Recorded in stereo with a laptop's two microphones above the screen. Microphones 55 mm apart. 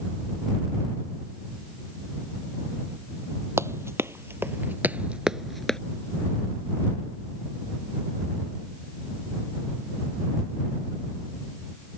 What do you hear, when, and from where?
3.6 s running footsteps: 55° right (ahead or behind); by 5.8 s 10° left (ahead or behind)